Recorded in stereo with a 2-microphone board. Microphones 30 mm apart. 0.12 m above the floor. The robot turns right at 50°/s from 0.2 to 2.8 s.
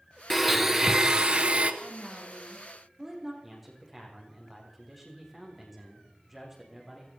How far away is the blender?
About 1.2 m.